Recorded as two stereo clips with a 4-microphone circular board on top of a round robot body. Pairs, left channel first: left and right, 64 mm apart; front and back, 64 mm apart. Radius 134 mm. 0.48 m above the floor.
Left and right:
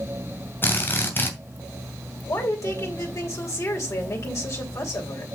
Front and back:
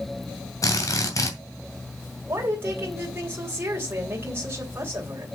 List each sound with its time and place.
0.6 s a drill: 35° left, 2.5 m
2.3 s a woman speaking: 125° left, 3 m